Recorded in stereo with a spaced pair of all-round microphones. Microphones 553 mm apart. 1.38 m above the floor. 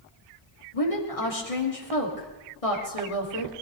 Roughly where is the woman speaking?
Left.